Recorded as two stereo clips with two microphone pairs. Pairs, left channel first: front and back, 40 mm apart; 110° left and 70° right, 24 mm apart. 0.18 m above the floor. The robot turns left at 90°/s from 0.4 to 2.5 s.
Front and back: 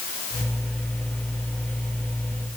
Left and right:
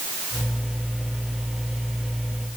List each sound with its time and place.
Only background noise.